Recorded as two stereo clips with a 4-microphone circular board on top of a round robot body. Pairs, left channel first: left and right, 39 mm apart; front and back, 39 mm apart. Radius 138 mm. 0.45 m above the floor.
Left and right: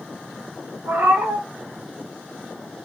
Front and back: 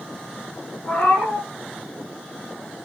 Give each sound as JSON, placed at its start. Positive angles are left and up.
{"t": 0.8, "sound": "a cat meowing", "azimuth_deg": -60, "distance_m": 0.9}